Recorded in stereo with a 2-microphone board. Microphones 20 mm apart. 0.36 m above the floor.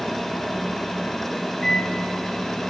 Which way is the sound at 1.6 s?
25° left (ahead or behind).